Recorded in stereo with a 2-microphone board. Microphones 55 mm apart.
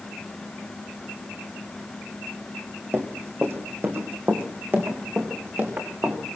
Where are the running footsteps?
45° right (ahead or behind), 3.5 m; by 6.2 s 40° right (ahead or behind), 5.5 m.